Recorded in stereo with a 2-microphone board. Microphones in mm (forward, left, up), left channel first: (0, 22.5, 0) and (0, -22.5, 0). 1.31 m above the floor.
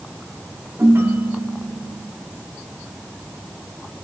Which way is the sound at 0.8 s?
70° right (ahead or behind).